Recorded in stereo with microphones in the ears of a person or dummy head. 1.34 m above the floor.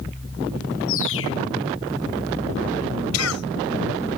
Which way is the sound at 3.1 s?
90° left.